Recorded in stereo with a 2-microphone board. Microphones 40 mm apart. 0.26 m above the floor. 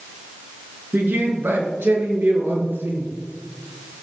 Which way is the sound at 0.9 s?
65° right (ahead or behind).